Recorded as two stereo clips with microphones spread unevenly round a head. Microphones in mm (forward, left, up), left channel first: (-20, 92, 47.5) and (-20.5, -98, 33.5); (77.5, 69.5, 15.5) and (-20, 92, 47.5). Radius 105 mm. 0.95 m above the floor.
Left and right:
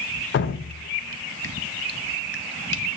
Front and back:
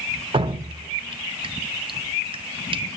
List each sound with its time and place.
0.3 s dripping: 125° left, 0.5 m